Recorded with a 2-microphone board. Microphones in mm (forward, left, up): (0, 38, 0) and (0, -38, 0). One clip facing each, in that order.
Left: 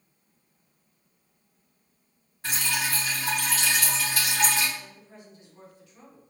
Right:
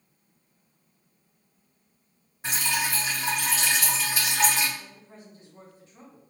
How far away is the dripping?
About 1.5 m.